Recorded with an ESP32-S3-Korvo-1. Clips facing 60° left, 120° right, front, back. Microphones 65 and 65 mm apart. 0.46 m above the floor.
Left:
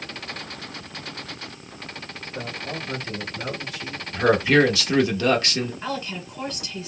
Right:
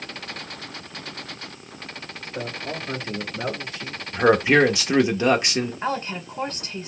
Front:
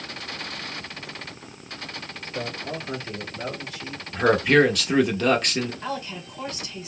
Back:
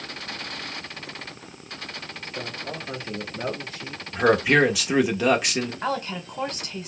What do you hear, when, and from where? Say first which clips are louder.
2.2 s a man speaking: right 2 dB, front 3 dB; 60° right, 1.2 m; by 4.0 s 155° right, 1.3 m
4.1 s a man speaking: right 1 dB, front 1 dB; 110° right, 0.7 m
5.8 s a woman speaking: right 3 dB, back 4 dB; 165° right, 1.5 m